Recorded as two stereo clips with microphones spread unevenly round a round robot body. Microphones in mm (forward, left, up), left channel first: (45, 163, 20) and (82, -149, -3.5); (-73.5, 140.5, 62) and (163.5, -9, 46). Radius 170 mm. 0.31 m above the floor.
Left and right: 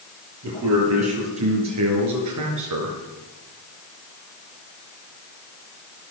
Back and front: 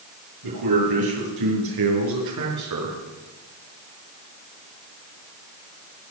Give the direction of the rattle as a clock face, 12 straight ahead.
I don't hear a rattle.